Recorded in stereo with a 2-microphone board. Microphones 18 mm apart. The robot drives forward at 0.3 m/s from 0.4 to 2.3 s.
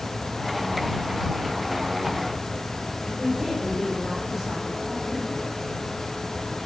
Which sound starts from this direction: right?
A woman speaking, at 3.0 s.